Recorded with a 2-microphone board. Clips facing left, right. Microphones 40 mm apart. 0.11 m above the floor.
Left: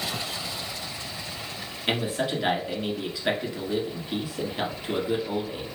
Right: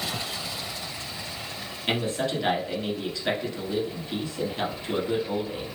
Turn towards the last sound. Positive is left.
turn(degrees=15)  # may be behind; listen again after turning